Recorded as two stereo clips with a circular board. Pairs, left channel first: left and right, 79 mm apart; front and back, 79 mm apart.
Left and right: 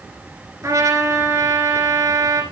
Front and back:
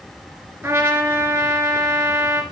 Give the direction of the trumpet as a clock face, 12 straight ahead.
4 o'clock.